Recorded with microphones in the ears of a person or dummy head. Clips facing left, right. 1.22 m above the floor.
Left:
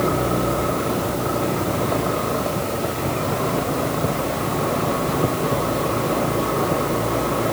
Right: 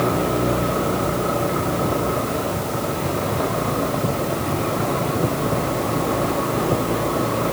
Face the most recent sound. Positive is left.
No sound to turn to.